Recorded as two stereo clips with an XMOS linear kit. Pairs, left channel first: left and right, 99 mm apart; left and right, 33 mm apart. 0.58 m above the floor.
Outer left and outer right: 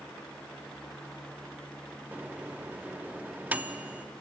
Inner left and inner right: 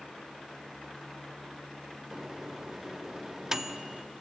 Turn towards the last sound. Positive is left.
turn(degrees=-15)  # may be behind; listen again after turning